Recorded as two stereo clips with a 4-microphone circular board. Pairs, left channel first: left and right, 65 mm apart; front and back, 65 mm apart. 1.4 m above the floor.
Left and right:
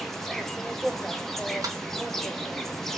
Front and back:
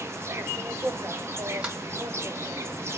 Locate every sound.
0.0 s an insect: 170° left, 0.7 m
1.6 s a sliding door: 105° right, 1.7 m